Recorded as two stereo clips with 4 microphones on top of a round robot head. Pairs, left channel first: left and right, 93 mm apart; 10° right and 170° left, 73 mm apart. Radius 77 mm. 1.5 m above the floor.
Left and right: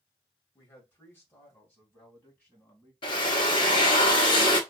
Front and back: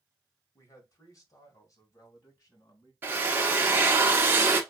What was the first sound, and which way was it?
A man speaking, 25° left.